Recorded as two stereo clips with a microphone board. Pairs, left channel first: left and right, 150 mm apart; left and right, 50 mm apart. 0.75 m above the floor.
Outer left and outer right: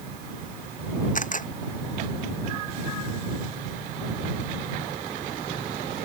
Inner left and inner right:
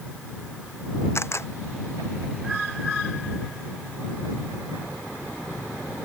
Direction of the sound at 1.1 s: 60° left (ahead or behind).